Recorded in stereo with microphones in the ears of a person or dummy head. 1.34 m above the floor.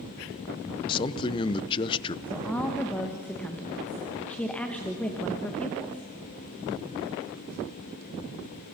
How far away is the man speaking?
About 0.6 m.